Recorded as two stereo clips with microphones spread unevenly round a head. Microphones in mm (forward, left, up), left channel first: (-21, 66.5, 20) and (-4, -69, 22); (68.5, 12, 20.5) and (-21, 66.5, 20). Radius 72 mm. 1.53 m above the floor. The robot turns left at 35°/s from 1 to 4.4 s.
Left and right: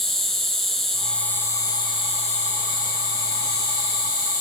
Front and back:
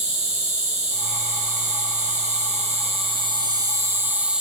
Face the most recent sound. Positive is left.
turn(degrees=65)